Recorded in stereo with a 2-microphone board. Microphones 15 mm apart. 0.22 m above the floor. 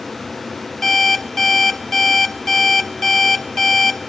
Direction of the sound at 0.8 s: 25° left (ahead or behind).